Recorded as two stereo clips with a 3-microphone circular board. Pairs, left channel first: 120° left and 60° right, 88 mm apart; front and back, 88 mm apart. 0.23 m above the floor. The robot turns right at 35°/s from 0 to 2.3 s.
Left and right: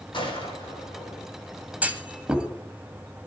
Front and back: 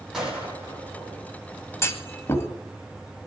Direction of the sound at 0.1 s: 95° left.